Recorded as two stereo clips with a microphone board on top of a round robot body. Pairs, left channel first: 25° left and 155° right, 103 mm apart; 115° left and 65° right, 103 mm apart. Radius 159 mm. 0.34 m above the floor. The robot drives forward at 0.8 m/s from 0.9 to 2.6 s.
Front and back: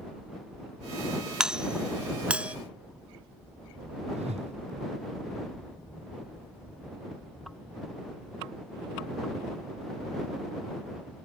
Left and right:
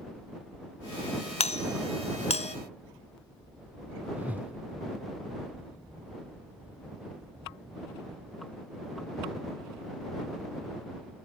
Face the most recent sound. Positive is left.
turn(degrees=-145)